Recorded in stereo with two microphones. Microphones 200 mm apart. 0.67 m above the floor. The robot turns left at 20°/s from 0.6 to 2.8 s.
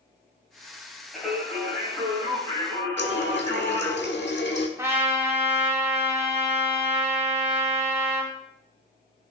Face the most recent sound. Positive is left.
turn(degrees=-15)  # may be behind; listen again after turning